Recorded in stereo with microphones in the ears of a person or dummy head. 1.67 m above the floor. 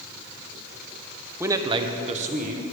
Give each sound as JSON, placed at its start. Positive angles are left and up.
{"t": 1.4, "sound": "a man speaking", "side_deg": -10, "distance_m": 0.8}